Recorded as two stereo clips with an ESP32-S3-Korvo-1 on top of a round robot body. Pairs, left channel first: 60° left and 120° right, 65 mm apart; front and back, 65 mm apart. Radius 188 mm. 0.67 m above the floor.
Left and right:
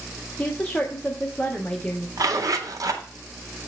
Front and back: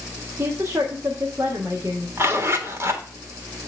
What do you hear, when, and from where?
0.4 s a woman speaking: 130° left, 1.3 m
2.2 s a zipper: 135° right, 1.8 m